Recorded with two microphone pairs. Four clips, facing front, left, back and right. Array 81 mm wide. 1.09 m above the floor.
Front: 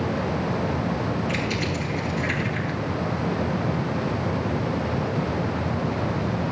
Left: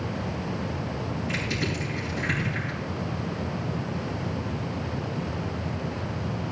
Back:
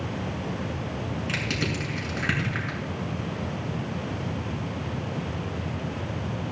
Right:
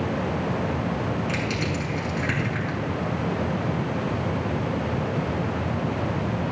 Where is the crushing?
155° right, 7 m.